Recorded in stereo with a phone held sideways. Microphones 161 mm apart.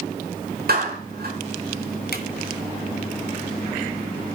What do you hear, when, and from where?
0.7 s a clap: 70° right (ahead or behind), 7 m
2.1 s a drawer: 80° left, 2 m